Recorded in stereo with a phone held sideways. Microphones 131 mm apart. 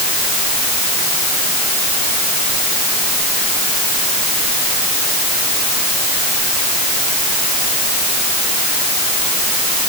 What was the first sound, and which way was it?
Only background noise.